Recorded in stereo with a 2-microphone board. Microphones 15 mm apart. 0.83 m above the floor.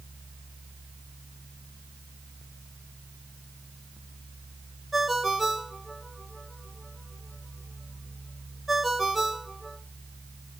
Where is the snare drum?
No snare drum in this recording.